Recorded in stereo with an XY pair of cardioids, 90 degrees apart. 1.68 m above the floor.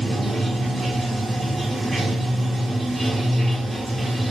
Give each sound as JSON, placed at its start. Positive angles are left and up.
{"t": 0.0, "sound": "running water", "azimuth_deg": -25, "distance_m": 0.8}